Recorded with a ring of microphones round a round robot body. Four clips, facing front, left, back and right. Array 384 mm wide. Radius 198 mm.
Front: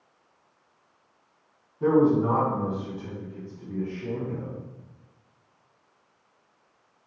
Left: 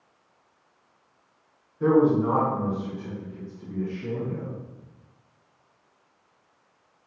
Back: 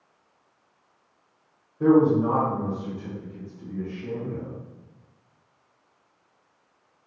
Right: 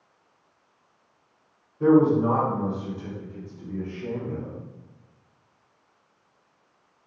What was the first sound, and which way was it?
A man speaking, 165° right.